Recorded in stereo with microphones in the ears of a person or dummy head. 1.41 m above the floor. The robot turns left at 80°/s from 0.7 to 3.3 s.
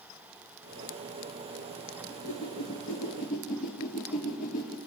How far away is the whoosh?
About 3 m.